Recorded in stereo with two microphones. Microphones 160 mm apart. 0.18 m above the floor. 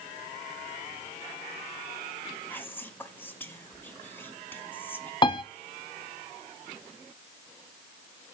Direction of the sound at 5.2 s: 30° left (ahead or behind).